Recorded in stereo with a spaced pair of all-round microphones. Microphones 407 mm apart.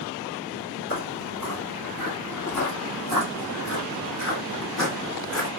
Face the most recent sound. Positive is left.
turn(degrees=40)  # may be behind; listen again after turning